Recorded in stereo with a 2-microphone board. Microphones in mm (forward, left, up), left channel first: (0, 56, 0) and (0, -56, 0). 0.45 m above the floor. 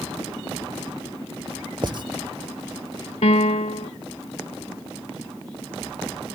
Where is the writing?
45° right (ahead or behind).